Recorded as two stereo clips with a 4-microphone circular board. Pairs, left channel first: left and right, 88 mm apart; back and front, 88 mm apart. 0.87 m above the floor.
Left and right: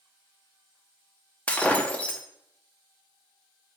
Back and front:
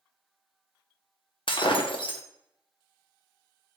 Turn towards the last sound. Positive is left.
turn(degrees=165)